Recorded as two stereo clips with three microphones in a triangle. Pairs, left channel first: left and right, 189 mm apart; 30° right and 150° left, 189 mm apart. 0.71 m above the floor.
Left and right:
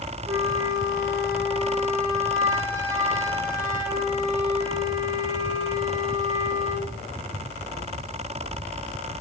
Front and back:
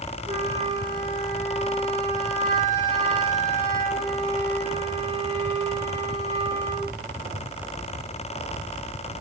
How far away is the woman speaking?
No woman speaking in this recording.